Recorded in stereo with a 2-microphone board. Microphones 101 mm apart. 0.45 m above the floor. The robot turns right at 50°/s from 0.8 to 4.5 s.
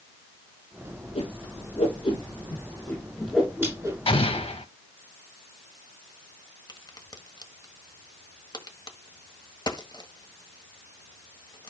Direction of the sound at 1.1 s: 80° left.